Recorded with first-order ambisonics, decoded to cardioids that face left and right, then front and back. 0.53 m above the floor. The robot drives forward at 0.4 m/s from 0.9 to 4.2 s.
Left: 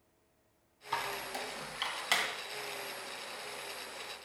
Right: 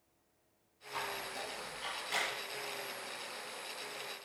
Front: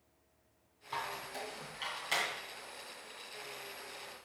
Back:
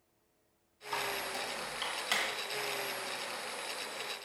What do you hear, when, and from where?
0.9 s a squeak: 95° left, 2 m; by 2.3 s 110° left, 2.5 m